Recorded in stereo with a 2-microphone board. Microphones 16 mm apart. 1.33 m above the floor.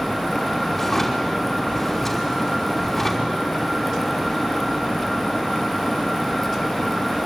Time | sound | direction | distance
0.8 | a drawer | 20° left (ahead or behind) | 5 m